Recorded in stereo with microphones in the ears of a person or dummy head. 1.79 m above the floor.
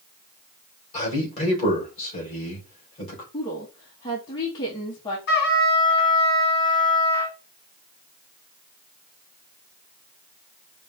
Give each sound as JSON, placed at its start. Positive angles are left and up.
{"t": 0.9, "sound": "a man speaking", "side_deg": 30, "distance_m": 3.0}
{"t": 3.3, "sound": "a woman speaking", "side_deg": 20, "distance_m": 1.1}
{"t": 5.3, "sound": "a trumpet", "side_deg": 55, "distance_m": 1.7}